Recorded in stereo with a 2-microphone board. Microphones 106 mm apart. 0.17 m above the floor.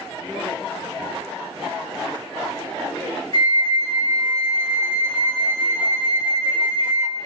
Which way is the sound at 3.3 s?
55° right (ahead or behind).